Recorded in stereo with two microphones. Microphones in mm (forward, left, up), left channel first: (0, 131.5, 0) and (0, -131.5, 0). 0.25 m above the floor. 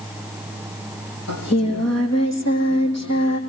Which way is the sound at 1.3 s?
75° left (ahead or behind).